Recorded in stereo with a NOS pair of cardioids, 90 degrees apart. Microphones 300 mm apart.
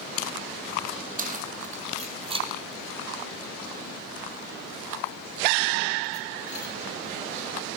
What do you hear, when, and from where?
1.2 s keys jangling: 25° right, 4.5 m; by 6.7 s 70° left, 3 m